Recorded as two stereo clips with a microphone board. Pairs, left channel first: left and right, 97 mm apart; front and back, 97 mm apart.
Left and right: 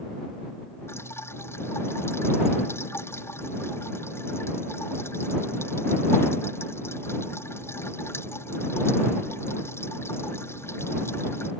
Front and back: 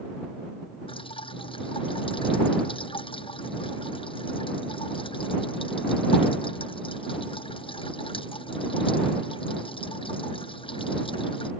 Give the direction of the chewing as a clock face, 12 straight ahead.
No chewing in this recording.